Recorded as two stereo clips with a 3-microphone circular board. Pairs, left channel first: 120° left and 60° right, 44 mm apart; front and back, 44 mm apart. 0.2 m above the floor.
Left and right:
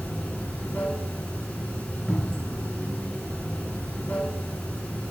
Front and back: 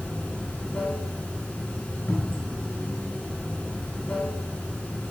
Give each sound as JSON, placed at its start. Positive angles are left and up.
{"t": 0.0, "sound": "running water", "azimuth_deg": 65, "distance_m": 1.9}
{"t": 2.1, "sound": "a cupboard door", "azimuth_deg": 20, "distance_m": 2.5}